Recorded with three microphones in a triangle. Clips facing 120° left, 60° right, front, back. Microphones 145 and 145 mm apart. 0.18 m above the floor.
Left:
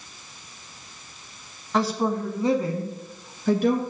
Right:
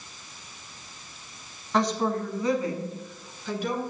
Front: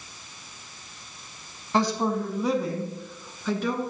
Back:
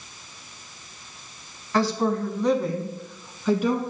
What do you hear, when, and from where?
1.7 s a woman speaking: 30° left, 1.1 m; by 3.8 s 105° left, 2.0 m